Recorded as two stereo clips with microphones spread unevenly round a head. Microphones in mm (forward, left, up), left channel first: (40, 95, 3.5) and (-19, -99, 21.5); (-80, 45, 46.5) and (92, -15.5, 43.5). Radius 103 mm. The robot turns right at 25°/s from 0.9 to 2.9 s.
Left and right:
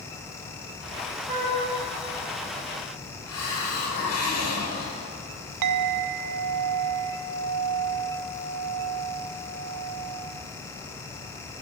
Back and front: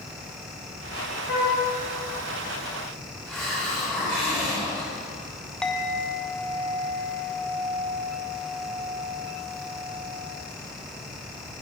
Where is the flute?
170° right, 1.7 m; by 1.6 s 160° right, 1.7 m.